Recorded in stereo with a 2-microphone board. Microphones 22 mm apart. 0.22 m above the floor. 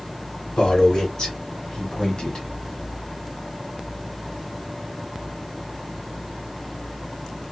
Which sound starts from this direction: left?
A man speaking, at 0.6 s.